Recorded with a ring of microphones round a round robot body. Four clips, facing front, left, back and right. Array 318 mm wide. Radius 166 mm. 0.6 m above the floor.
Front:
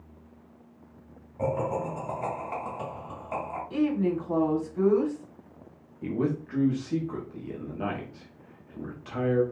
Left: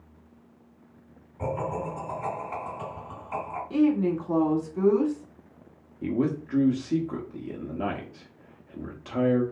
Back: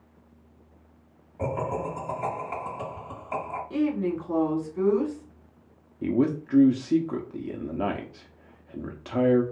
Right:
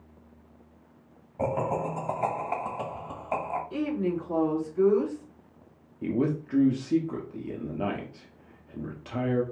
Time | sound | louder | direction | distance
1.4 | laughter | right 2 dB, front 1 dB | 95° right | 1.9 m
3.7 | a woman speaking | left 8 dB, even | 105° left | 1.6 m
6.0 | a man speaking | left 1 dB, back 4 dB | 175° right | 0.9 m